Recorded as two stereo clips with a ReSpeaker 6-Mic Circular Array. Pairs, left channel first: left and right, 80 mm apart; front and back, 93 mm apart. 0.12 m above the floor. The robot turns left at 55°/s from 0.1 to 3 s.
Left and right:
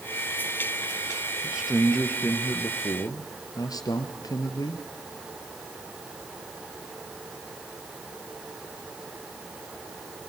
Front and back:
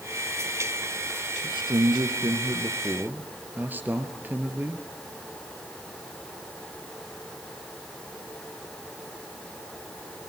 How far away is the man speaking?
About 2 m.